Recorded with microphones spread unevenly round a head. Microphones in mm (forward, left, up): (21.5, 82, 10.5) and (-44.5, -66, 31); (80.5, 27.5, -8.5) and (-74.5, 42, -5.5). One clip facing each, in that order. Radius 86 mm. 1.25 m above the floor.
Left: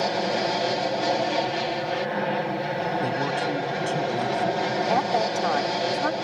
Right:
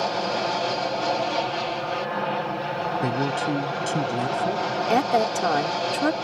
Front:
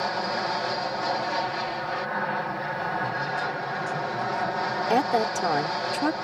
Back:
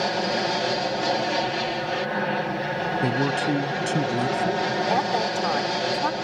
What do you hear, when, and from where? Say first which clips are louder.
0.0 s an aircraft: left 1 dB, back 4 dB; 135° left
3.0 s a man speaking: right 1 dB, back 6 dB; 175° left
4.9 s a woman speaking: right 5 dB, front 5 dB; 60° right